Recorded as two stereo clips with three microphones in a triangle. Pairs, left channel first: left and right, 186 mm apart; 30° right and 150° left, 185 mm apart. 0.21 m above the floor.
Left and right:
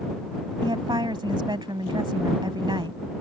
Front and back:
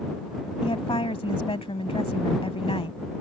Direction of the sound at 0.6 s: 50° right.